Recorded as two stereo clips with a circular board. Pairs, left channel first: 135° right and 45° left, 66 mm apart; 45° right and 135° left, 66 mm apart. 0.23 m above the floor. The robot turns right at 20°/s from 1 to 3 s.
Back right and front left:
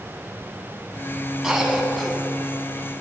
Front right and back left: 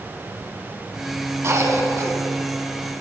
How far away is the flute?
No flute in this recording.